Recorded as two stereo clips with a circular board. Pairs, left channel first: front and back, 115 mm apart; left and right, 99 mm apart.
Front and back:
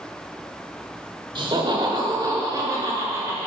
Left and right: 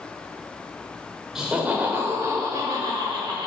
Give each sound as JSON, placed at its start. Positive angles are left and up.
{"t": 1.4, "sound": "laughter", "azimuth_deg": -170, "distance_m": 1.0}